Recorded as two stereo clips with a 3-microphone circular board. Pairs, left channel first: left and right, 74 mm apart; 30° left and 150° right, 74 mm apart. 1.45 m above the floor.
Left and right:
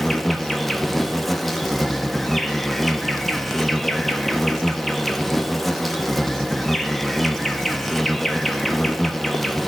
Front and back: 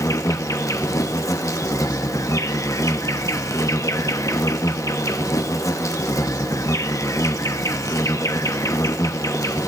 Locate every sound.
0.0 s an insect: 5° left, 1.0 m